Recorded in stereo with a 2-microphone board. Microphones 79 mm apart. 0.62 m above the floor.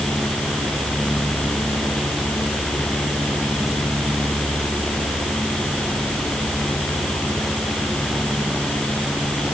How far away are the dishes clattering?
I don't hear dishes clattering.